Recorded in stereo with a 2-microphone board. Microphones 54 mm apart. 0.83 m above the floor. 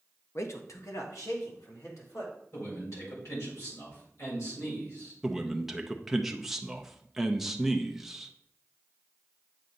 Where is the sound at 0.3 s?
55° left (ahead or behind), 0.7 m; by 2.3 s 75° left (ahead or behind), 2.5 m.